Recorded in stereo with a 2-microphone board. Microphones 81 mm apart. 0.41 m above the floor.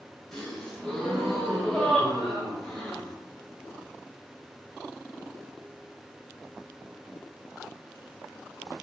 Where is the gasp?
5° left (ahead or behind), 1.3 m.